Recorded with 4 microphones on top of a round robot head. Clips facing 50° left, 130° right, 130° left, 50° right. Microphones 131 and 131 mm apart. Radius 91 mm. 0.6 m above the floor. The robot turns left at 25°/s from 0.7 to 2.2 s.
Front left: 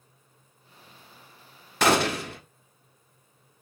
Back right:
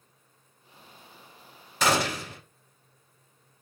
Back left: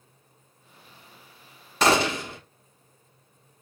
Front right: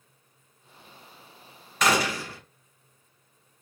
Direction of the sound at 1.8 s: 75° left.